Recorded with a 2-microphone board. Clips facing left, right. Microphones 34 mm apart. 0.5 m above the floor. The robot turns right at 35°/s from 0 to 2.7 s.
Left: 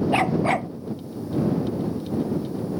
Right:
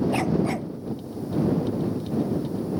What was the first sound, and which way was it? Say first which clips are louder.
A dog barking: left 3 dB; 35° left (ahead or behind).